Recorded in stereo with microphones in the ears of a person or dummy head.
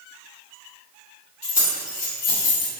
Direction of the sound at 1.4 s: 40° left (ahead or behind).